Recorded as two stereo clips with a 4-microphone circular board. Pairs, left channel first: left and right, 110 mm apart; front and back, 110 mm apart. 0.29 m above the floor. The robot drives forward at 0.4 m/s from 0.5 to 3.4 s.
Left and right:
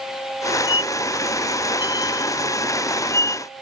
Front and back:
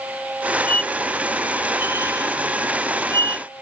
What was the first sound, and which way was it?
A squeak, 70° left.